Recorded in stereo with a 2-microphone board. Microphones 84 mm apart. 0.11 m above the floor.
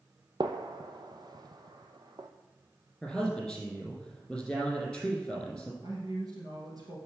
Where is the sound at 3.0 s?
5° left (ahead or behind), 3 m.